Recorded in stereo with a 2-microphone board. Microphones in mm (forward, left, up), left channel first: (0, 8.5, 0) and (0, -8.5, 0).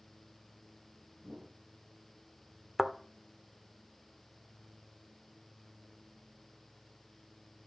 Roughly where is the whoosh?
Right.